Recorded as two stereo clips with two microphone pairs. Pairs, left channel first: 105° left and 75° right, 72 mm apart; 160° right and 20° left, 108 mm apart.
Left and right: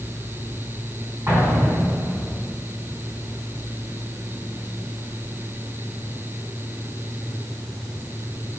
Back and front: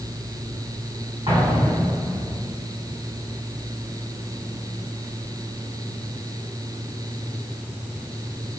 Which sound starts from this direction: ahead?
An explosion, at 1.3 s.